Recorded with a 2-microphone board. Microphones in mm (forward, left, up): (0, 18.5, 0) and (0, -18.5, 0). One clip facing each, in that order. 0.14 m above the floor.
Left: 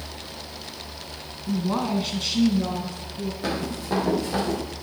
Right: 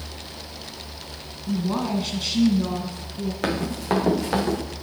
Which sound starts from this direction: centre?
A woman speaking, at 1.5 s.